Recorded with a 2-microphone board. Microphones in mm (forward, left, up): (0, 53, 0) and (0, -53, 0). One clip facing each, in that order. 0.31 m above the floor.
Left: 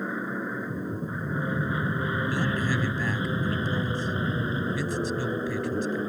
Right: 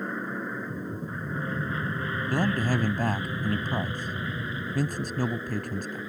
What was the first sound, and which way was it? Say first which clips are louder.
An aircraft: left 2 dB; 5° left (ahead or behind).